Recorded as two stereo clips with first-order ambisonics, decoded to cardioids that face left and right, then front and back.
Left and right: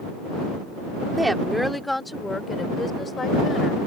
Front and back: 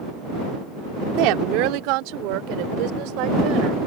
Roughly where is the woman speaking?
Behind.